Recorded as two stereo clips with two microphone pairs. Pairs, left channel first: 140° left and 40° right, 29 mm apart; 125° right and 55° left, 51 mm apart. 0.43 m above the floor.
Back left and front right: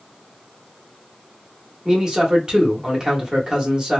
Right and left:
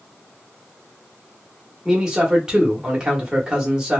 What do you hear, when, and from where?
1.9 s a man speaking: straight ahead, 0.9 m